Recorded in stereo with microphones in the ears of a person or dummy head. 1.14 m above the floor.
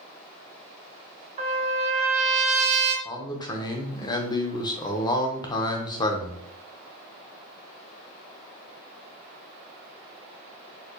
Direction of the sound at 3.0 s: 25° left (ahead or behind).